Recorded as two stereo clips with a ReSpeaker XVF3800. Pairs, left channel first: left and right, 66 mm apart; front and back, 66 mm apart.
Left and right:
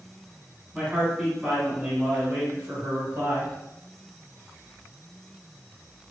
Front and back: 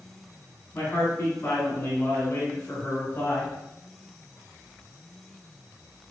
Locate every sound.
0.7 s a man speaking: 15° right, 1.7 m; by 3.5 s 50° right, 2.5 m